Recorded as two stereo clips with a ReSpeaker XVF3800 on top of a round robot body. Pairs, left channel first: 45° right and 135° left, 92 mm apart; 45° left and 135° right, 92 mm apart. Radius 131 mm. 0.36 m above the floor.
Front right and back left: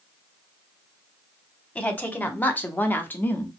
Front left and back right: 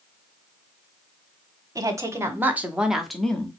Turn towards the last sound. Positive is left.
turn(degrees=-10)